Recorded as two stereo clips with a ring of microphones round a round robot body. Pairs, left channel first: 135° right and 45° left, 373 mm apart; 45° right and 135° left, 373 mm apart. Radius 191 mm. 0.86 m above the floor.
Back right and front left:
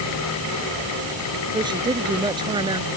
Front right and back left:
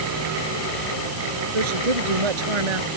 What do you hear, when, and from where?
1.5 s a woman speaking: 125° left